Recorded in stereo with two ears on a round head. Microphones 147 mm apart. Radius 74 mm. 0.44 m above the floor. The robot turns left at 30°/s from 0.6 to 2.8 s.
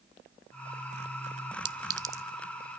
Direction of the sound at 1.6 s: 30° right (ahead or behind).